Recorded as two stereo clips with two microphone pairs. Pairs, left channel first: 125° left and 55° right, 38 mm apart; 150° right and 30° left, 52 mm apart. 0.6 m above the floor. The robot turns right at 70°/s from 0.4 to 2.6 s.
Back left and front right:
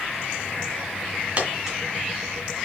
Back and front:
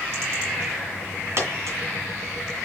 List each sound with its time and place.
1.4 s a dropped coin: 5° right, 1.9 m; by 1.8 s 25° left, 1.9 m